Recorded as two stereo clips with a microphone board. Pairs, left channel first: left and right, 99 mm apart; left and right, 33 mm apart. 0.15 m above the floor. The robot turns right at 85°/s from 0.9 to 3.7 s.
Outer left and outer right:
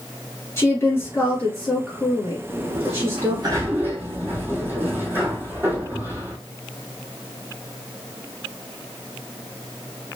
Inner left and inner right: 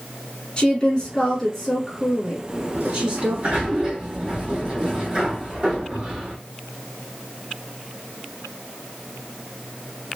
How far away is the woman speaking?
About 1.6 m.